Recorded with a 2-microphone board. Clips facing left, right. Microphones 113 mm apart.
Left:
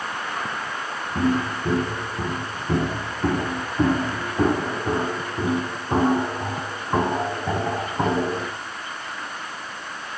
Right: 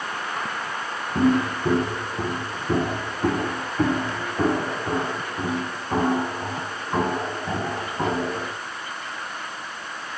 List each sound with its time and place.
1.1 s footsteps: 30° right (ahead or behind), 3 m; by 8.5 s 30° left (ahead or behind), 6 m